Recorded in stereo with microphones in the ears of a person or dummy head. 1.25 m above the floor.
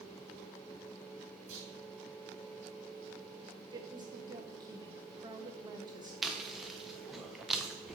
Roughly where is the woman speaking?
Right.